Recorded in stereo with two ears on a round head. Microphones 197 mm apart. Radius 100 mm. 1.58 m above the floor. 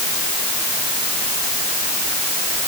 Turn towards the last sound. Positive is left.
No sound to turn to.